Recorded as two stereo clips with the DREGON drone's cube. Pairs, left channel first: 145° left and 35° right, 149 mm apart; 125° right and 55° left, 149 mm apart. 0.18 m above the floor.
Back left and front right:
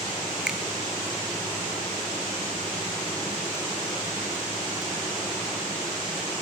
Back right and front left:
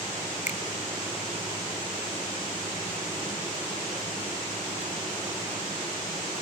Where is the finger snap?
120° right, 1.6 m.